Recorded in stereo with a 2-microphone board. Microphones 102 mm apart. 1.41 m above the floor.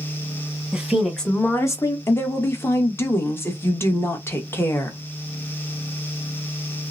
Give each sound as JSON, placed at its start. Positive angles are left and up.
{"t": 0.7, "sound": "a woman speaking", "side_deg": -10, "distance_m": 1.5}
{"t": 2.1, "sound": "a woman speaking", "side_deg": 25, "distance_m": 1.1}